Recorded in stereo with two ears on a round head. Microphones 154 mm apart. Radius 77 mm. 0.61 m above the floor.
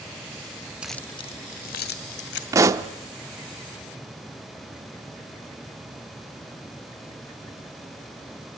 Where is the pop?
20° right (ahead or behind), 0.7 m.